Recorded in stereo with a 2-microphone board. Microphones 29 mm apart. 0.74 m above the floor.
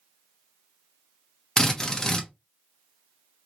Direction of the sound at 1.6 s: 25° left (ahead or behind).